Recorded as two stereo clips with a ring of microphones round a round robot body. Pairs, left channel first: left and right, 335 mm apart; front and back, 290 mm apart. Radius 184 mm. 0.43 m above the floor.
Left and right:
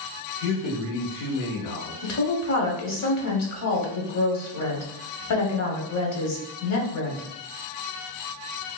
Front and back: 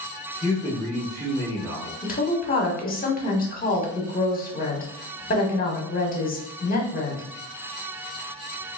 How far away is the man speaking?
About 1.6 m.